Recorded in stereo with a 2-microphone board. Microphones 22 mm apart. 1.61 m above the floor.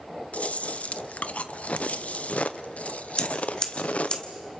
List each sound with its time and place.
0.3 s chewing: 70° left (ahead or behind), 0.7 m
3.2 s scissors: 40° left (ahead or behind), 1.5 m